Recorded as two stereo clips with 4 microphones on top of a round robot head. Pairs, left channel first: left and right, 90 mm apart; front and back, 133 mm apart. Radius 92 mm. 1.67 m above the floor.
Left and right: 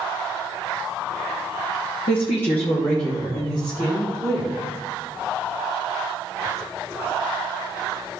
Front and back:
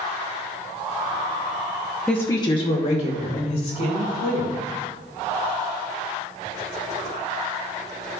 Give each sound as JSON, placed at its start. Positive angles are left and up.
{"t": 2.1, "sound": "a woman speaking", "azimuth_deg": 80, "distance_m": 0.9}